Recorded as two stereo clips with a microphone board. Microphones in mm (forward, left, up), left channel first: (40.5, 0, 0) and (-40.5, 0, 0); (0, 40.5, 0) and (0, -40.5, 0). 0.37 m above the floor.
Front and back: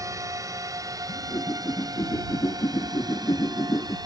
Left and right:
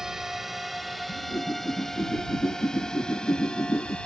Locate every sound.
0.0 s a drone: 170° right; by 4.1 s 165° left
1.1 s a whoosh: 45° left